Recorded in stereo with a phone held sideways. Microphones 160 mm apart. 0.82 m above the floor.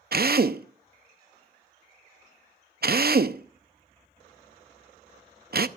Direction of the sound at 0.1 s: 70° right (ahead or behind).